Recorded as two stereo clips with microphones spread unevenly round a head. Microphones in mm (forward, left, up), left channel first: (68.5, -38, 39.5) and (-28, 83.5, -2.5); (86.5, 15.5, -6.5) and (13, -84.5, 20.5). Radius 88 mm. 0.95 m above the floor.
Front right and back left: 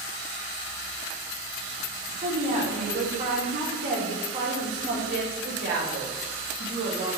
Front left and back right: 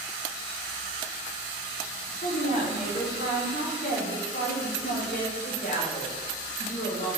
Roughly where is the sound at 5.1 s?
Left.